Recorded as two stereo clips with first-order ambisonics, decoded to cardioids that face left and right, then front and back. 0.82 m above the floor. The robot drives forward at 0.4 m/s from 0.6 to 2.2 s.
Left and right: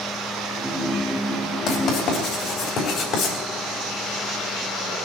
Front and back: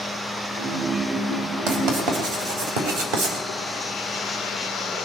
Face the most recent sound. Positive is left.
turn(degrees=155)